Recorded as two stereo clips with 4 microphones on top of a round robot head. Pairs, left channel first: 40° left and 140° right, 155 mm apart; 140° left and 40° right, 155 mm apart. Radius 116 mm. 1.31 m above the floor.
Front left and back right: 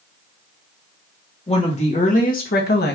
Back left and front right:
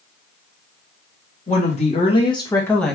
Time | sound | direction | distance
1.5 | a woman speaking | 95° left | 1.5 m